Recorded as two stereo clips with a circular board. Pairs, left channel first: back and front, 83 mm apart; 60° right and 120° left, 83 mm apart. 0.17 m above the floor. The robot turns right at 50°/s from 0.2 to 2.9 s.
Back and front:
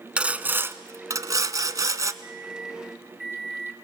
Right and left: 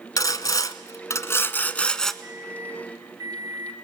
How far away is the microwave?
About 3 m.